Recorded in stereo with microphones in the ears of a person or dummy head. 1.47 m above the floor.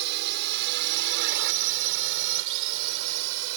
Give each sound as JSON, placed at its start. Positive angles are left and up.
{"t": 0.0, "sound": "a drone", "side_deg": -65}